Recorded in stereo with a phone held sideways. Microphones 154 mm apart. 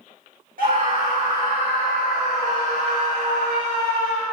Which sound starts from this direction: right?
A scream, at 0.6 s.